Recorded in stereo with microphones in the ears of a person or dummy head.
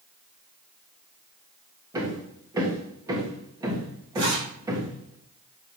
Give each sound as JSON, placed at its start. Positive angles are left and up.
{"t": 1.9, "sound": "hammering", "side_deg": -20, "distance_m": 1.3}
{"t": 4.2, "sound": "a zipper", "side_deg": -65, "distance_m": 3.0}